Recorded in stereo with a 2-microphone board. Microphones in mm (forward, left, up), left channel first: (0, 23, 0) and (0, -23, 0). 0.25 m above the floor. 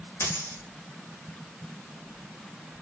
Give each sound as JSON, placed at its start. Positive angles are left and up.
{"t": 0.2, "sound": "a dropped coin", "side_deg": 65, "distance_m": 3.0}